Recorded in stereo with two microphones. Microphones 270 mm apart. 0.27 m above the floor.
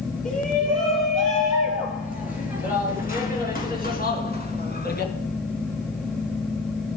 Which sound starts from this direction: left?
A shout, at 0.2 s.